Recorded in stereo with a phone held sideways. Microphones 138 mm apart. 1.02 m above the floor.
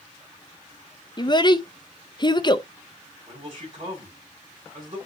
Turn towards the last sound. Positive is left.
turn(degrees=-40)  # may be behind; listen again after turning